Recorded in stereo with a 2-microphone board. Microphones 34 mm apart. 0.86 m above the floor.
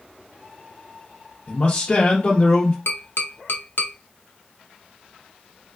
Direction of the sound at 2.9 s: 80° left.